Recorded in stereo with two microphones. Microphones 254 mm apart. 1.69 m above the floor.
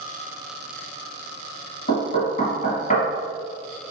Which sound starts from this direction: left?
Knocking, at 1.9 s.